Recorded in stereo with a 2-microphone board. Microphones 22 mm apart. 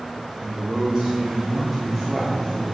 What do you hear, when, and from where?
0.4 s a man speaking: 35° right (ahead or behind), 1.6 m; by 2.6 s 25° left (ahead or behind), 1.1 m